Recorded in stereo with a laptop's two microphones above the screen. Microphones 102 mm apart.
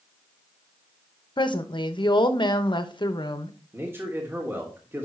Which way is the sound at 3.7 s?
25° right (ahead or behind).